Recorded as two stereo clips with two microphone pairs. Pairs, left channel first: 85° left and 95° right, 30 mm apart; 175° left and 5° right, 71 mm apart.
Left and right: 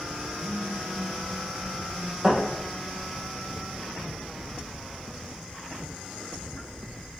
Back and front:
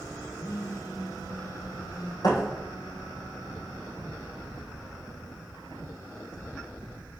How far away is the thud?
About 3.5 m.